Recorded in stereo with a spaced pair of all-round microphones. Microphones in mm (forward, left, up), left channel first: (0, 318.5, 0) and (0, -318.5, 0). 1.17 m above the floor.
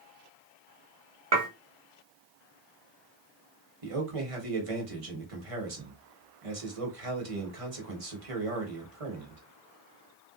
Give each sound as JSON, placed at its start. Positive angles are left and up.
{"t": 1.3, "sound": "dishes clattering", "side_deg": -65, "distance_m": 1.1}
{"t": 3.8, "sound": "a man speaking", "side_deg": -55, "distance_m": 1.2}